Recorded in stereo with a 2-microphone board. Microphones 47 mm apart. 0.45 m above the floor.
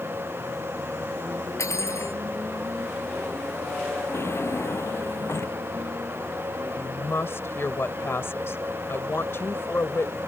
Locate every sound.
1.6 s cutlery clinking: 80° left
4.1 s a drawer: 65° left (ahead or behind)
6.8 s a woman speaking: 60° left (ahead or behind)